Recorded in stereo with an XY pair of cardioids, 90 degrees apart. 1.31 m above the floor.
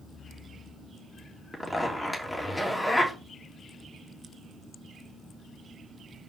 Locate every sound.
1.5 s a zipper: 15° left, 2.5 m